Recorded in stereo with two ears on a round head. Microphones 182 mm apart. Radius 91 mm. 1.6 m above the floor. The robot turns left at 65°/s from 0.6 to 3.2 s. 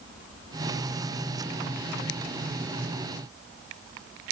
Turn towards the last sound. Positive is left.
No sound to turn to.